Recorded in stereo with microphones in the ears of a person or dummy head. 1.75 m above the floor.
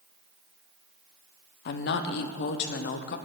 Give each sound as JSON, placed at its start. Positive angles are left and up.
{"t": 1.6, "sound": "a woman speaking", "side_deg": 50, "distance_m": 0.7}